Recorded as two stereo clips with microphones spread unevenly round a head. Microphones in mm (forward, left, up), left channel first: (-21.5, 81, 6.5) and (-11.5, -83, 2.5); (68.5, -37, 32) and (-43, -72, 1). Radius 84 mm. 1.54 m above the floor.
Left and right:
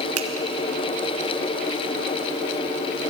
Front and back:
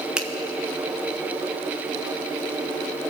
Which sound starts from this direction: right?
A finger snap, at 0.2 s.